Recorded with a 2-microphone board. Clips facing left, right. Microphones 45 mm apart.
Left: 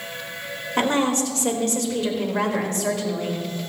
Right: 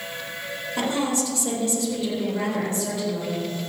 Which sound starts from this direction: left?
A woman speaking, at 0.8 s.